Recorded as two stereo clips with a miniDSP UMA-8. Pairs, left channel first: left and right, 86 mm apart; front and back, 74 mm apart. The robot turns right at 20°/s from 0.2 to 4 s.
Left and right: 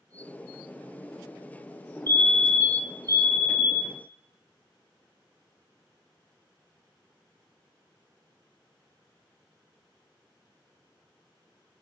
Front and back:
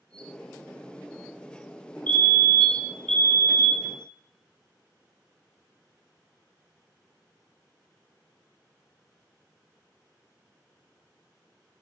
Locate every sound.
2.1 s a fire alarm: 50° left, 2.5 m; by 3.9 s 90° left, 2.5 m